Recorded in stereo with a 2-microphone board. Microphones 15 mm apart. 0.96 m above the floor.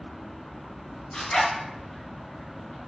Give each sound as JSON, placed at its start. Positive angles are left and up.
{"t": 1.1, "sound": "a zipper", "side_deg": 70, "distance_m": 1.5}